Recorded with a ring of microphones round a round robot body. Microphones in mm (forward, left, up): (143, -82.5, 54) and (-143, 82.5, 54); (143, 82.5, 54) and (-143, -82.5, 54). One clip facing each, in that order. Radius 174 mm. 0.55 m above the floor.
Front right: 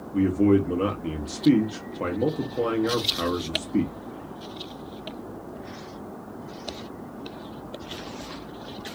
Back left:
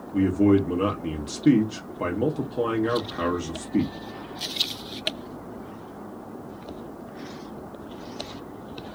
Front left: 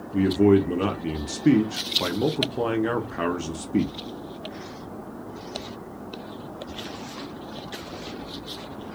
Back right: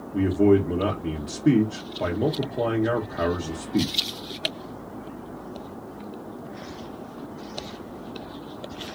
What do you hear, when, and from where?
0.1 s a man speaking: 70° left, 0.6 m